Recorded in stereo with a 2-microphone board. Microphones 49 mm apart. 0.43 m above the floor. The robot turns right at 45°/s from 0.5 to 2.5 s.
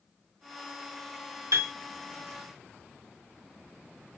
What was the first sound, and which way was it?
A piano, 70° right (ahead or behind).